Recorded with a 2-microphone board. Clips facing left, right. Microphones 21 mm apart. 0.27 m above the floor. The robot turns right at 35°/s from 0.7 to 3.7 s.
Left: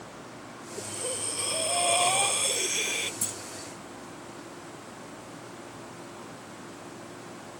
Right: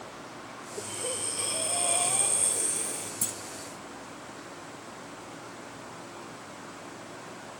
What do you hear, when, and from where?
0.8 s breathing: 15° right; by 3.1 s 65° left
3.2 s a clunk: 5° left (ahead or behind); by 3.4 s 15° left (ahead or behind)